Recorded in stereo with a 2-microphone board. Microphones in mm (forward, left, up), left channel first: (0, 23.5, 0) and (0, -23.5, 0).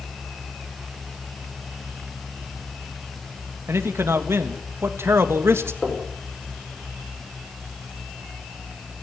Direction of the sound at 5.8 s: 10° left (ahead or behind).